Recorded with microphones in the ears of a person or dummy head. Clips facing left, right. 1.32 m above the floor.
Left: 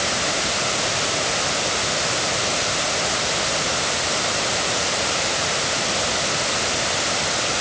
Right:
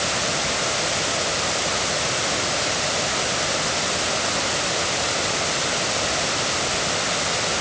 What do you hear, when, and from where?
Only background noise.